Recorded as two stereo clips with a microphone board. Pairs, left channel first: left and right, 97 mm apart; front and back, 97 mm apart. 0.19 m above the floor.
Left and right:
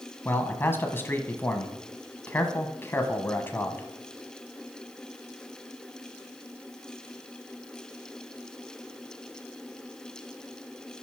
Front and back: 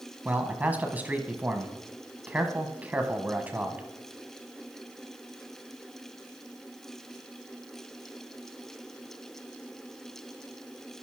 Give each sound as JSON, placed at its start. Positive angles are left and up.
{"t": 0.2, "sound": "a man speaking", "azimuth_deg": 130, "distance_m": 1.1}